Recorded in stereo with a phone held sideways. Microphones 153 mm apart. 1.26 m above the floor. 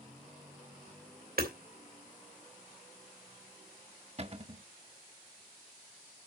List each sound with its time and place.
1.4 s hammering: 80° right, 3 m
4.2 s a cupboard door: 40° right (ahead or behind), 0.9 m